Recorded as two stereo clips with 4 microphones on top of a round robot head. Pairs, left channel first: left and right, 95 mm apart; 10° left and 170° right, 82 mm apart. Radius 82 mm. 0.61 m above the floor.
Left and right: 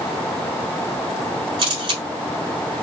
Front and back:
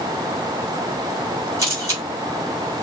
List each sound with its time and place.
1.6 s a camera shutter: 120° right, 3.5 m